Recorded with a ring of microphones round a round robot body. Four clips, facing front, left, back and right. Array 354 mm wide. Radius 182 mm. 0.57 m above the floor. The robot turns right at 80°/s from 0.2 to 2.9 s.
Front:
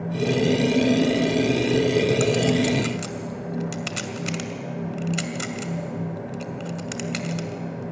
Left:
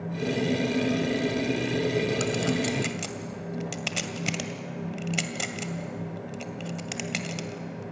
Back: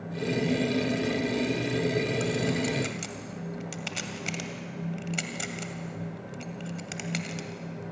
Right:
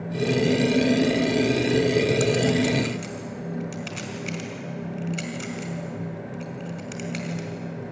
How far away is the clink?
About 1.8 m.